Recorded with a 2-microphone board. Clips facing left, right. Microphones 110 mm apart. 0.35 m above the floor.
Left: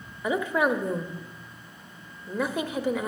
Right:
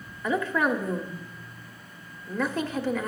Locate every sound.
0.2 s a woman speaking: 15° left (ahead or behind), 1.0 m